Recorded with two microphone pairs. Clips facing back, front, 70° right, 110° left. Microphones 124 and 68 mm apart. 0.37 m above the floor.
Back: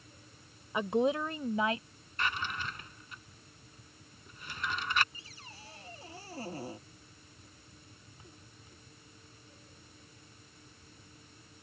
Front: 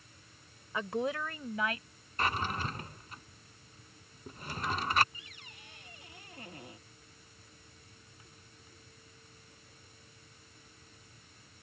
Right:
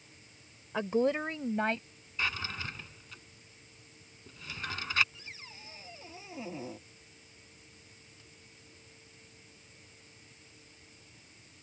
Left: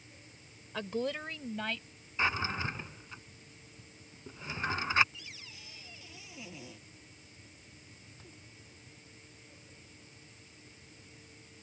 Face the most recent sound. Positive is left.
turn(degrees=-125)